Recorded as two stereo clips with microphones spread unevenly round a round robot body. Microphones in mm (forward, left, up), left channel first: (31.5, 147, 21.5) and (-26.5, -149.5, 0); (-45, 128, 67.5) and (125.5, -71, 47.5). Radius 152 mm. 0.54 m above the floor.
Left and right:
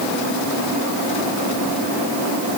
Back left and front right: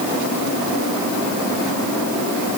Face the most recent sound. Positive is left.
No sound to turn to.